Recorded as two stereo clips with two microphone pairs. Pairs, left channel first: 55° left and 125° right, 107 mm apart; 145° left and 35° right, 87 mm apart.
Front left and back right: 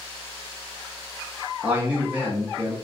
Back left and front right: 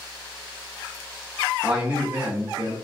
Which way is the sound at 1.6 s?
90° right.